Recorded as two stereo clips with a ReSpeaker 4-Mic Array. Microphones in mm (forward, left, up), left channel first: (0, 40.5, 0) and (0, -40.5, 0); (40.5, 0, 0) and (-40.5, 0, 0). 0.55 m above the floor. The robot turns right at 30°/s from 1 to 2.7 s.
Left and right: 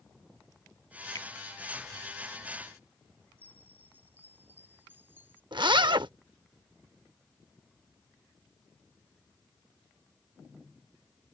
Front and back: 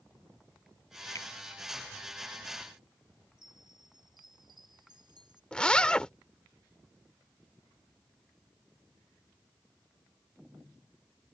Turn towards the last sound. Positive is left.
turn(degrees=-75)